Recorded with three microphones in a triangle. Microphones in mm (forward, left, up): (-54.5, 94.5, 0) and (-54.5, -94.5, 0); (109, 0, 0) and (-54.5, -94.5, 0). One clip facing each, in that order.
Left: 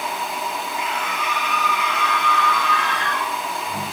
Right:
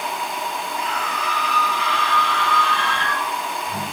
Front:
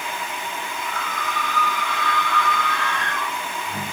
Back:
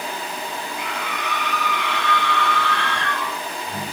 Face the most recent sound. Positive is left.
turn(degrees=-150)